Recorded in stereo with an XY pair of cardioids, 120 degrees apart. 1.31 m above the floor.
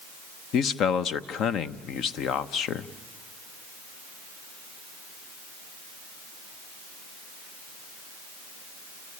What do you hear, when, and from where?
0.5 s a man speaking: 65° left, 0.9 m